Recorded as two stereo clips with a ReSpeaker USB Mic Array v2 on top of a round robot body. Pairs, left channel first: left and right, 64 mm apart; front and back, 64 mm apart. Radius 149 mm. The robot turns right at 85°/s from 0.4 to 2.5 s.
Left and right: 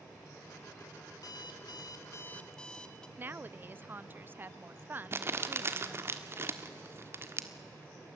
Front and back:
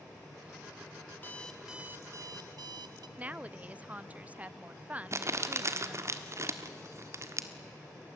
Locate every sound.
1.1 s an alarm clock: 55° left, 1.0 m; by 3.1 s 170° left, 1.0 m
3.2 s a woman speaking: 125° right, 0.6 m
5.1 s crumpling: 140° right, 1.5 m